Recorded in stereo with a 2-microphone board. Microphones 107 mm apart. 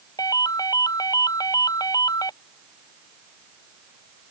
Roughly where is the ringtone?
Left.